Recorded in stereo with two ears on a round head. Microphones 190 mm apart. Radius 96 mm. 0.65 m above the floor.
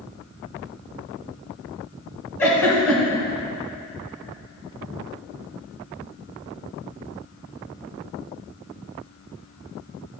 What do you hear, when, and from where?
2.4 s a giggle: 15° left (ahead or behind), 1.7 m